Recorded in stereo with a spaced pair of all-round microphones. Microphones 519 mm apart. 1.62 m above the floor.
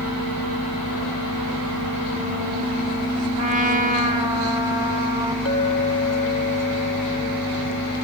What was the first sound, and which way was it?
A trumpet, 60° right (ahead or behind).